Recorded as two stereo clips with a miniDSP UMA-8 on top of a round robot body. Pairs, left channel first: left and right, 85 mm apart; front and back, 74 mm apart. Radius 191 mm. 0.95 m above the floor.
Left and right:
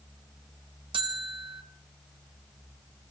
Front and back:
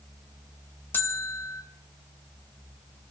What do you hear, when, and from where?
0.9 s a bell: 65° right, 0.6 m